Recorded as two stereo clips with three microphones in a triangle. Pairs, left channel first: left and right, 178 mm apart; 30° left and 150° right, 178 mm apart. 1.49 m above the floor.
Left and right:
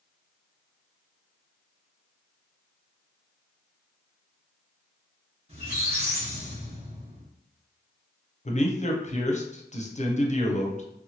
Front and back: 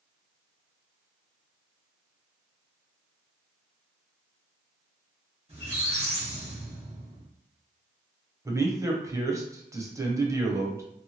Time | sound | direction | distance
5.5 | a squeak | 120° right | 1.2 m
8.4 | a man speaking | 140° left | 0.6 m